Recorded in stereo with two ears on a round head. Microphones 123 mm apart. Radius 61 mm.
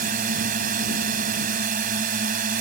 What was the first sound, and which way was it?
A drone, 65° right (ahead or behind).